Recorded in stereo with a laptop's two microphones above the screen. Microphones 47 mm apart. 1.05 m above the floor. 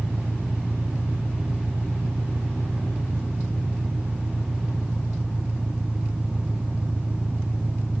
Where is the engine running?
30° right (ahead or behind).